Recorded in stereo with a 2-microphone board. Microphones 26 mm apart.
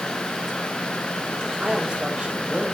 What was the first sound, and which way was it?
A woman speaking, 35° right (ahead or behind).